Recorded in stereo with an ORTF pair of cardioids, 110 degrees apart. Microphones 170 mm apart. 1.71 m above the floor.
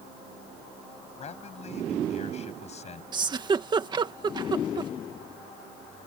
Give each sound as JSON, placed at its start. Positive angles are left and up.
{"t": 1.2, "sound": "a man speaking", "azimuth_deg": 45}
{"t": 3.1, "sound": "a giggle", "azimuth_deg": -30}